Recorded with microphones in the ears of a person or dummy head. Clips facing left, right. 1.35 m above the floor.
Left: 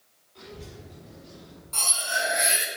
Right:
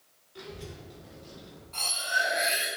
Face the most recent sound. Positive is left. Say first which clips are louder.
# left 3 dB
turn(degrees=55)  # may be behind; listen again after turning